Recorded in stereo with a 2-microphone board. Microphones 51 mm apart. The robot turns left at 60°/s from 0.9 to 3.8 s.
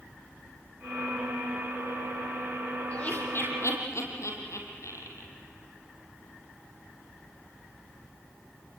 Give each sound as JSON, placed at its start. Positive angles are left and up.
{"t": 2.9, "sound": "laughter", "side_deg": 20, "distance_m": 5.0}